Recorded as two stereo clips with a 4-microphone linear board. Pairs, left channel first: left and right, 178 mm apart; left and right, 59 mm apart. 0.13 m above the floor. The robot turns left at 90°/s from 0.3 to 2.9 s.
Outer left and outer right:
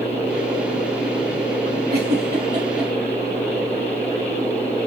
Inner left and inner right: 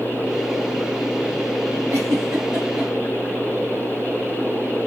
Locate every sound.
1.9 s a giggle: 60° right (ahead or behind), 3.5 m; by 2.9 s 5° left (ahead or behind), 3.5 m